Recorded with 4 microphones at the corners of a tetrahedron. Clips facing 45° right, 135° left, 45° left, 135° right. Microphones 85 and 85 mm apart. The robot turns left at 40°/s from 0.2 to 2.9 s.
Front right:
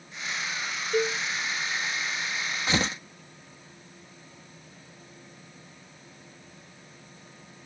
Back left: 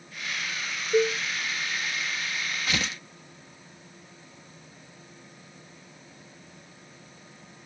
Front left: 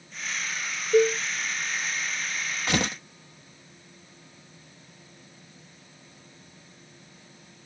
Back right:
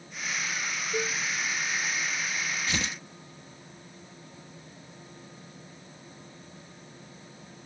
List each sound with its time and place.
0.9 s a cowbell: 65° left; by 1.2 s 55° left
2.7 s tearing paper: 20° left; by 3.0 s 10° left